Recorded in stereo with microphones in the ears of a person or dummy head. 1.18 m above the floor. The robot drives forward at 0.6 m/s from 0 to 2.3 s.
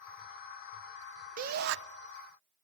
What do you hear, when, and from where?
1.4 s a shout: 45° right (ahead or behind), 0.6 m; by 1.8 s 60° right (ahead or behind), 0.5 m